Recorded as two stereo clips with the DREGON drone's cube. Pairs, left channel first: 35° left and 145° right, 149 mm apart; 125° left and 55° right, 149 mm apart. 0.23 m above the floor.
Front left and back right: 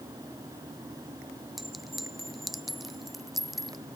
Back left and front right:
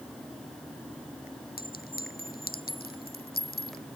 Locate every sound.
1.6 s a clink: 125° left